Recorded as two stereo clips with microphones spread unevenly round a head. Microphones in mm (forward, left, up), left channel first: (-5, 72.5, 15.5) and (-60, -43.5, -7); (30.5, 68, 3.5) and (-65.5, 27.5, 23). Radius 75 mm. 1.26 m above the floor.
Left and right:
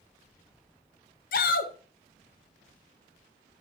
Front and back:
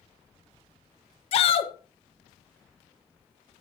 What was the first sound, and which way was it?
A shout, 35° left.